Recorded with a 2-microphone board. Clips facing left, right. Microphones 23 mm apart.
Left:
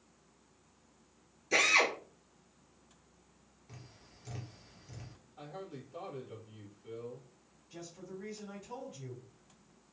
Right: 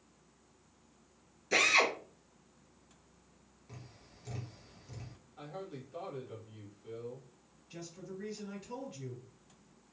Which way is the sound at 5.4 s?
20° right (ahead or behind).